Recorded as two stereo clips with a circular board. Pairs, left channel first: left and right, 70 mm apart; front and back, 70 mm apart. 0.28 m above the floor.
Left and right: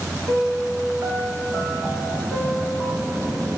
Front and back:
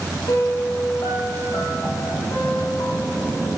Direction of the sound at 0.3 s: 25° right.